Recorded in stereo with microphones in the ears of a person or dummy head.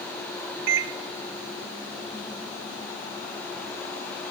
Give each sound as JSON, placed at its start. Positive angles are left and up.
{"t": 0.7, "sound": "a microwave", "side_deg": -65, "distance_m": 0.6}